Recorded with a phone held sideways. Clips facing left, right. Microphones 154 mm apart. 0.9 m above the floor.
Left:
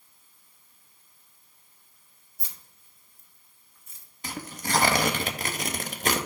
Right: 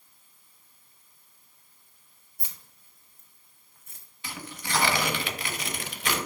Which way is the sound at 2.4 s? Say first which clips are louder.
Right 1 dB; 55° right (ahead or behind).